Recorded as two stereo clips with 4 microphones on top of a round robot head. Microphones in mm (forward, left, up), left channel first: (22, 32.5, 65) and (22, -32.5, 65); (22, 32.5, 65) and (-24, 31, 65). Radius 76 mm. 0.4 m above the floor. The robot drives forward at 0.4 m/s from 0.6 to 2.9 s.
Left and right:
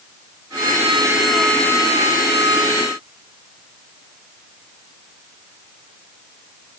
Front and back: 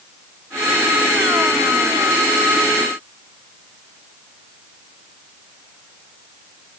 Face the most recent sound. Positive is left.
No sound to turn to.